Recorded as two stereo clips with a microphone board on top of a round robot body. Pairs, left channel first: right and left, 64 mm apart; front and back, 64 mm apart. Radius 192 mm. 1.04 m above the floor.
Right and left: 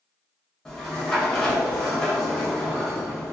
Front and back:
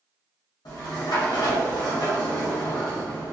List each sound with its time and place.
0.7 s a sliding door: 10° right, 0.8 m